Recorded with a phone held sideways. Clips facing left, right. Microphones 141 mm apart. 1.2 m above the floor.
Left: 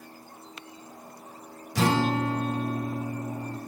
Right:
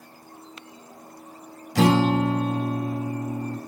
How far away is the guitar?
About 1.3 m.